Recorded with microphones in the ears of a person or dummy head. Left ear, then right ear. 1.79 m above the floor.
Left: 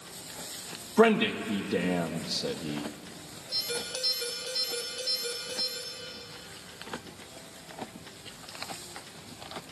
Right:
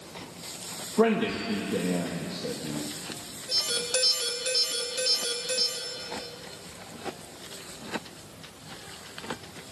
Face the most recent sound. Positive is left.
turn(degrees=-55)  # may be behind; listen again after turning